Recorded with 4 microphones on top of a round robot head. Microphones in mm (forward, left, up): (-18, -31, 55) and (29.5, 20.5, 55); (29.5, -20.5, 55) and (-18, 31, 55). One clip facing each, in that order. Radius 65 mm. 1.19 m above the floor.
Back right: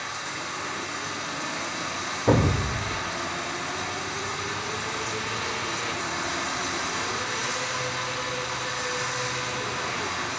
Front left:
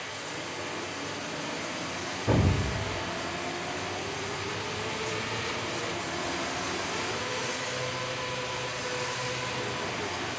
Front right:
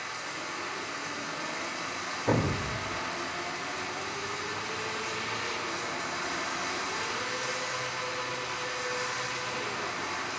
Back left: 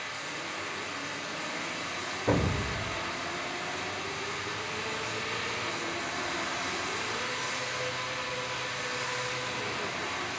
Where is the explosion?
140° right, 2 m.